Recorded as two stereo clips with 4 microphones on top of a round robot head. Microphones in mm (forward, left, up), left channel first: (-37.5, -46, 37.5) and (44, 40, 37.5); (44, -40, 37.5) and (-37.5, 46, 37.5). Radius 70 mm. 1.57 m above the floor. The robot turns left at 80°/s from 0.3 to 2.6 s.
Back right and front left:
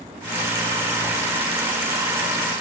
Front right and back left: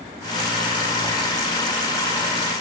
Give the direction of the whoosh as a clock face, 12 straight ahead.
11 o'clock.